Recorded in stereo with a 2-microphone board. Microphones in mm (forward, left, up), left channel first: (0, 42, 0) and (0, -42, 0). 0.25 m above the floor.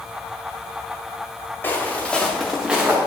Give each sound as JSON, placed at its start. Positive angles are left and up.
{"t": 1.6, "sound": "footsteps", "side_deg": 25, "distance_m": 2.0}